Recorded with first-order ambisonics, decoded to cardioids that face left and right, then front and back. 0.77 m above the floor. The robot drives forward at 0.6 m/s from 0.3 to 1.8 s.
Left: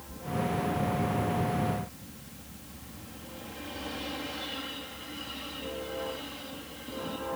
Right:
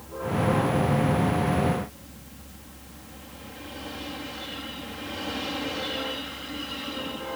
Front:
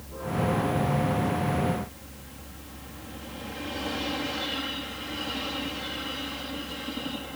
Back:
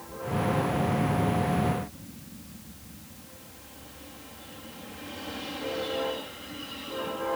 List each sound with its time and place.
Only background noise.